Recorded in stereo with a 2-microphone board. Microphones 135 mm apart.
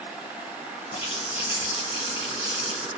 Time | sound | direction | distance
0.9 | a running tap | 40° left (ahead or behind) | 1.7 m